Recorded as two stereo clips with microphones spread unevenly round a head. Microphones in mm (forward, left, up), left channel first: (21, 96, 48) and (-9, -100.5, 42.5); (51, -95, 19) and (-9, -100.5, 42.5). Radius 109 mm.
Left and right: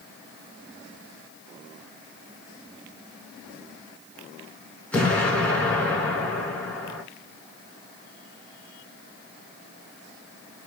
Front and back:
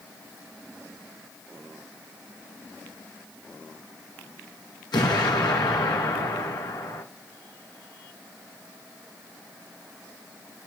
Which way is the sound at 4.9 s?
Straight ahead.